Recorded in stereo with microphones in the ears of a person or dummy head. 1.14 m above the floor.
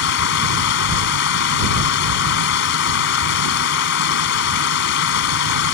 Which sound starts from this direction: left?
Running water, at 0.0 s.